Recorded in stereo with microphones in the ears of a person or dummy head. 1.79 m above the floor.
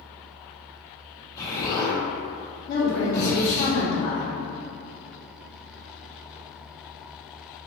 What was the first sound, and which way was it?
An explosion, 20° left (ahead or behind).